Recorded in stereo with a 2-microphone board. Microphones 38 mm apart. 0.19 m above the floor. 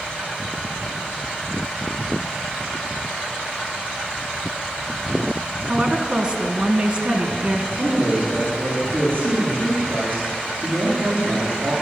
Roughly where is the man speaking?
Right.